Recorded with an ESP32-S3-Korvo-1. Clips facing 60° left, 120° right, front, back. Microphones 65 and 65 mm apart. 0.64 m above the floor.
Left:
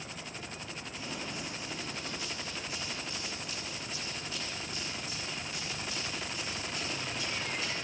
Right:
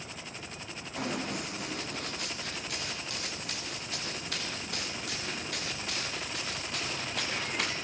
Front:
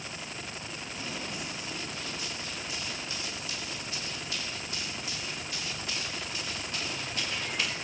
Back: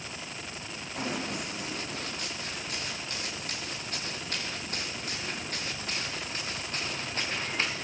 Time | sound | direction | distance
1.0 | running footsteps | 145° right | 6 m